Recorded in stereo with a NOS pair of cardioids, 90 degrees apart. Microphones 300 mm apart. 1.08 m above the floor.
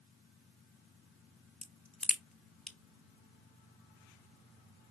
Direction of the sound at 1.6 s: Straight ahead.